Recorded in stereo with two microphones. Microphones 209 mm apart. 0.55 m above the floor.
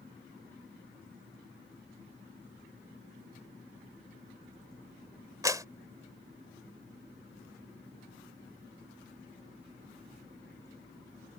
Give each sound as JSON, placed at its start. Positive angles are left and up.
{"t": 5.4, "sound": "a clap", "side_deg": -15}